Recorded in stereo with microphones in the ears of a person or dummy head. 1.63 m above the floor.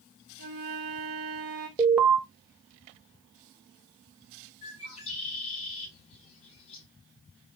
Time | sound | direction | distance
0.4 | a flute | 40° right (ahead or behind) | 0.8 m
1.8 | an alarm | 10° right (ahead or behind) | 0.6 m
4.6 | a bird | 35° left (ahead or behind) | 1.9 m